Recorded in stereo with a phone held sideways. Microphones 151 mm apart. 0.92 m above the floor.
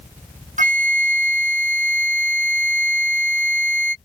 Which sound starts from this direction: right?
A flute, at 0.6 s.